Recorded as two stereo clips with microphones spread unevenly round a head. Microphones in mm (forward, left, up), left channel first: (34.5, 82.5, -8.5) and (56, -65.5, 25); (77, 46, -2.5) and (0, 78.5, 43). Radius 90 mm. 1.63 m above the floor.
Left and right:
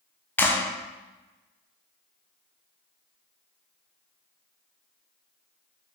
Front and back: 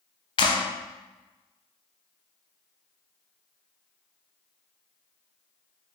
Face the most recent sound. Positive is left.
turn(degrees=10)